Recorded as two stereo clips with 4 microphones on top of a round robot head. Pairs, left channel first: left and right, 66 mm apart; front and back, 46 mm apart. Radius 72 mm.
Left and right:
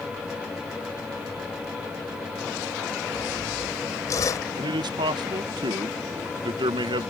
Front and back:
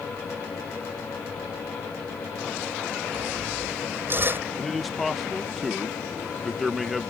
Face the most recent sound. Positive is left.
turn(degrees=-90)